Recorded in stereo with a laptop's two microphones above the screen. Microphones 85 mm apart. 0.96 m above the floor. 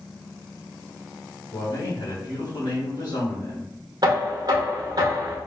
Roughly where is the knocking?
Right.